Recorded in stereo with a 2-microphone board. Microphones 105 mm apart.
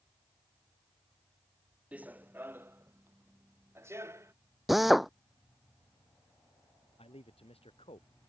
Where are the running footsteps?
15° right (ahead or behind); by 4.3 s 25° right (ahead or behind).